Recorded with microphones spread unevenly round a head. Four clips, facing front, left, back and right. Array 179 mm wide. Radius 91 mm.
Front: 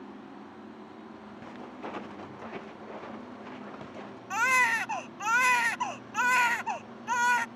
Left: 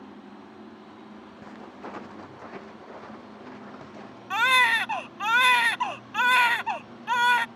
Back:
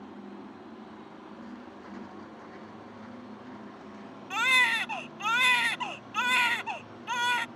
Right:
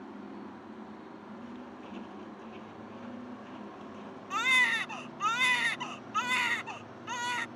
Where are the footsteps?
40° left; by 4.2 s 30° left.